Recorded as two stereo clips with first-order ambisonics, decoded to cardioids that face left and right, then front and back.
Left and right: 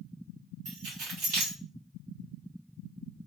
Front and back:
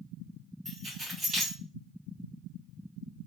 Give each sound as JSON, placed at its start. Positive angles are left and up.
{"t": 0.7, "sound": "keys jangling", "azimuth_deg": -115, "distance_m": 1.5}